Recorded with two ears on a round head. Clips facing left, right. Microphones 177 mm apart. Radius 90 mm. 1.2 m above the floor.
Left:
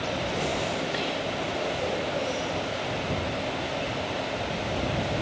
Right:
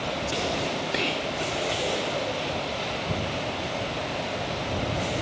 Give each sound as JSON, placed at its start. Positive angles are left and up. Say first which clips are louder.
{"t": 0.9, "sound": "whispering", "louder": "right 1 dB", "side_deg": -30}